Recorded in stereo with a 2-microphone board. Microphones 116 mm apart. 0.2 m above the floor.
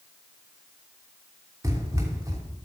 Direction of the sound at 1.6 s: 25° right (ahead or behind).